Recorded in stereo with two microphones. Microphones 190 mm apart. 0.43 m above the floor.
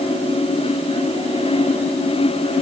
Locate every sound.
Only background noise.